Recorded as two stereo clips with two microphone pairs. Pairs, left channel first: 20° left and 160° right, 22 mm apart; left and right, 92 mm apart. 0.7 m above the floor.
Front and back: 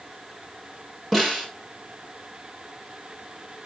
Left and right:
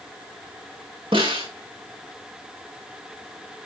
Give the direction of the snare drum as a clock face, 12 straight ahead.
2 o'clock.